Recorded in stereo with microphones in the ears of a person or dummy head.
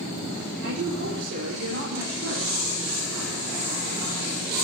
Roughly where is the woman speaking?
Right.